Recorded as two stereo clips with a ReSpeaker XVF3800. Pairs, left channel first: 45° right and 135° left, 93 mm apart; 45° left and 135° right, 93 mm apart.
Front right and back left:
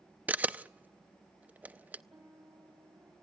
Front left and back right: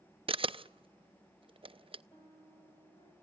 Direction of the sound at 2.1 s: 80° left.